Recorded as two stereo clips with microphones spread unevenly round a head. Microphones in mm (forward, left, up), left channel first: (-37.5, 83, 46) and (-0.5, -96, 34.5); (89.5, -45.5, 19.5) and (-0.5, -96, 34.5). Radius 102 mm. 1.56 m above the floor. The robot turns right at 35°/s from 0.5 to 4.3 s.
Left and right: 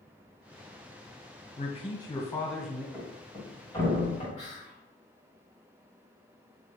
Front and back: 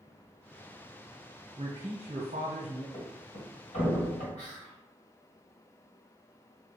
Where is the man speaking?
155° left, 1.1 m; by 2.8 s 160° right, 1.1 m.